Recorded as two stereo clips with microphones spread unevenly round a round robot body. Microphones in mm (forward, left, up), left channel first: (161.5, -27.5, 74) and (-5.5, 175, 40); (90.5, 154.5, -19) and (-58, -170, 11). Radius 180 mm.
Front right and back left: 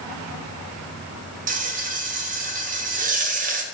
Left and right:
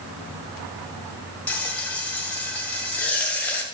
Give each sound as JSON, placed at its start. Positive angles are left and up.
{"t": 1.5, "sound": "frying", "azimuth_deg": 145, "distance_m": 1.6}